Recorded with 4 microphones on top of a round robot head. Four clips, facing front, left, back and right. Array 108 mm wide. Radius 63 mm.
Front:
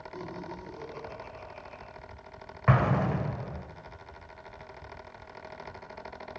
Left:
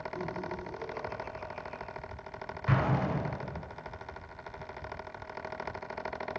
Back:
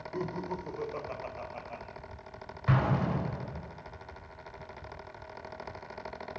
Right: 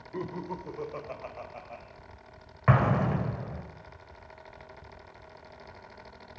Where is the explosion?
50° right, 3.5 m.